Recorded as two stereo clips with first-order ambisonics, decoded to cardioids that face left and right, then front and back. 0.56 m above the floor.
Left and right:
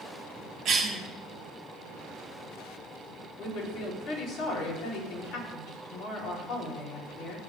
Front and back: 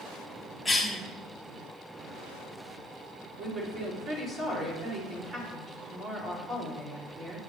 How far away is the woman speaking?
About 2 m.